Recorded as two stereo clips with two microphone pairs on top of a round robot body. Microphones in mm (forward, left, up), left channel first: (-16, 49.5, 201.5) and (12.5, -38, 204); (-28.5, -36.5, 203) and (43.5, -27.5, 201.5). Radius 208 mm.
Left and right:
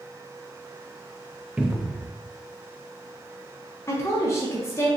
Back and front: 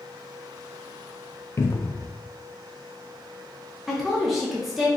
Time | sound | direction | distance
1.6 | a cupboard door | 150° right | 0.6 m
3.9 | a woman speaking | 90° left | 0.9 m